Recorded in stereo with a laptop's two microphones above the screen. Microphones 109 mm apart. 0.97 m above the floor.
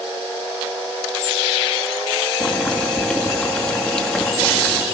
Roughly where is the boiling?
Centre.